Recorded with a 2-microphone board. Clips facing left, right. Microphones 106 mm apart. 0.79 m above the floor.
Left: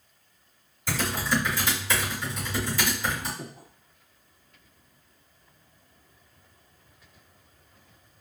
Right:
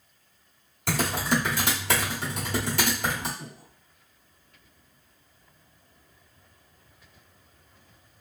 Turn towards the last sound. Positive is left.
turn(degrees=50)  # may be behind; listen again after turning